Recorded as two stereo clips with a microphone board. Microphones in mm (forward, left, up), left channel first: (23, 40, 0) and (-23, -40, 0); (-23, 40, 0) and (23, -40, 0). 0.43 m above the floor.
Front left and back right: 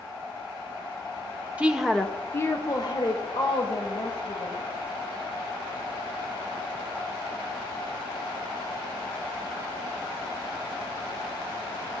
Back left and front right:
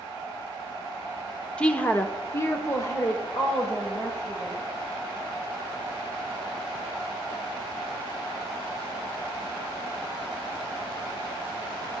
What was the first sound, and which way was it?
A woman speaking, 175° right.